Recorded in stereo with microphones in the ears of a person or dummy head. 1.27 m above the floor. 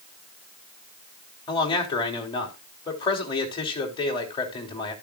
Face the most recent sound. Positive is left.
turn(degrees=25)  # may be behind; listen again after turning